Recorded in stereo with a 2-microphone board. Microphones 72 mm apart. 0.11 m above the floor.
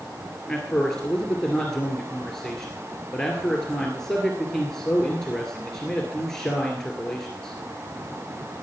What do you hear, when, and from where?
0.5 s a man speaking: 5° left (ahead or behind), 1.9 m